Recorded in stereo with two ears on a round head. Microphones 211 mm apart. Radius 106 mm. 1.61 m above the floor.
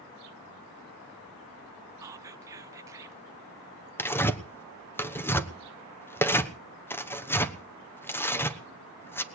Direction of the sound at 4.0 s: 10° left (ahead or behind).